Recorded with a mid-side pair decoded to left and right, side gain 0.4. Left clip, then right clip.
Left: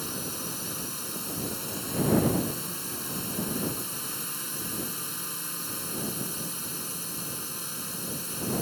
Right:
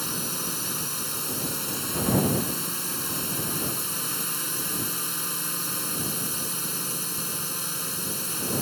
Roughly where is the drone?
Ahead right.